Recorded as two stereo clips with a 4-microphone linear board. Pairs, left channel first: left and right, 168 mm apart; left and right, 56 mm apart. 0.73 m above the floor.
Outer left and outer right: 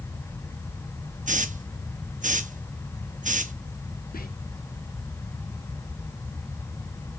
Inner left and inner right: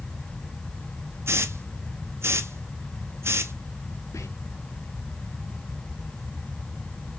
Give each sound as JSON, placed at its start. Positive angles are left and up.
{"t": 1.3, "sound": "a hiss", "side_deg": -50, "distance_m": 0.6}
{"t": 4.1, "sound": "whispering", "side_deg": 60, "distance_m": 1.0}